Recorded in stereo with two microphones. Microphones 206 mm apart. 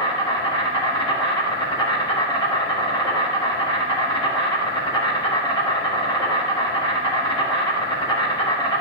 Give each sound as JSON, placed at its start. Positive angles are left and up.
{"t": 0.0, "sound": "an insect", "side_deg": 25, "distance_m": 1.6}